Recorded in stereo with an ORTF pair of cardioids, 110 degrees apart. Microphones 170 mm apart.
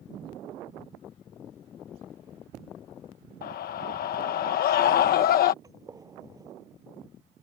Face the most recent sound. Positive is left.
turn(degrees=-20)